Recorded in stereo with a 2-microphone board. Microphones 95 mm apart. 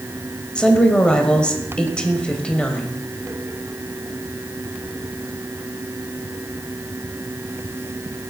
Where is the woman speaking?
10° left (ahead or behind), 1.2 m.